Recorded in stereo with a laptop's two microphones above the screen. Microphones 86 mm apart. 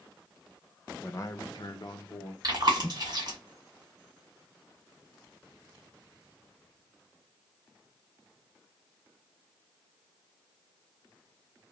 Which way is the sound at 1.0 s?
25° left (ahead or behind).